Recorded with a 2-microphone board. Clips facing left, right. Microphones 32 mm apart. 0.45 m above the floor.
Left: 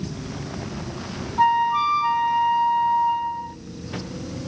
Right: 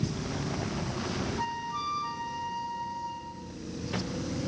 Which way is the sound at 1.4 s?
55° left (ahead or behind).